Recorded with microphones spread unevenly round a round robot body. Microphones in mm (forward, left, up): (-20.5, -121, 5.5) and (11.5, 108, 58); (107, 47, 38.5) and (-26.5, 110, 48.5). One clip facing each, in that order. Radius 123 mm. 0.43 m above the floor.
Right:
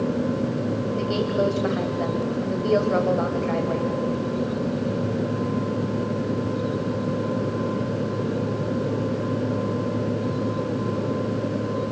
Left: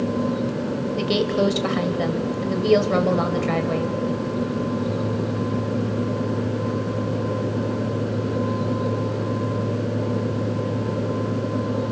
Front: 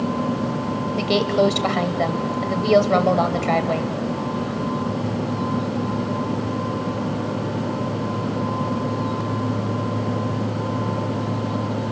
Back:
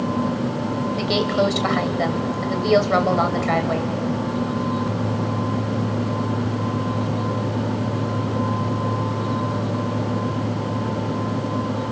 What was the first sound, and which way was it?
A woman speaking, 40° left.